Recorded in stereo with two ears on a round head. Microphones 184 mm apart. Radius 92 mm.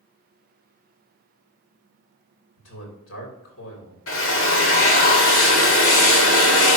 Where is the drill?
70° left (ahead or behind), 1.6 m.